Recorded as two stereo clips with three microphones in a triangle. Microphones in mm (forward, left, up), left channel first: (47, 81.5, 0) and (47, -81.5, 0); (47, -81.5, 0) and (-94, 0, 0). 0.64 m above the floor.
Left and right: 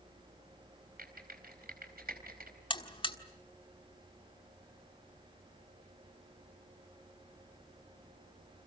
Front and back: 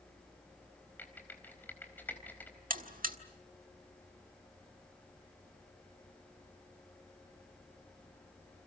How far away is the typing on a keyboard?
About 4 m.